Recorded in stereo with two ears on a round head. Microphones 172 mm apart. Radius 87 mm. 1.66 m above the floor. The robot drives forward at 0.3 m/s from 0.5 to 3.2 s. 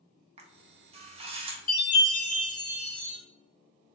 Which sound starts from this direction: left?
A chime, at 1.7 s.